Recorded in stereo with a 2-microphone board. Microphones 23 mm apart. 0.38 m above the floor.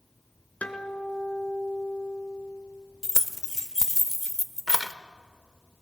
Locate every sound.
0.6 s a guitar: 85° left, 1.2 m
3.0 s keys jangling: 15° right (ahead or behind), 0.6 m